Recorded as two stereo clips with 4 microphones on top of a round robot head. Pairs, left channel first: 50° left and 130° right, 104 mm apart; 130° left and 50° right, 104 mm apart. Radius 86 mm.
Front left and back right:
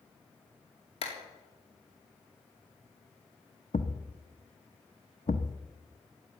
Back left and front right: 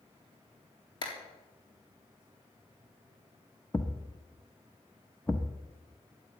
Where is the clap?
80° left, 3.5 m.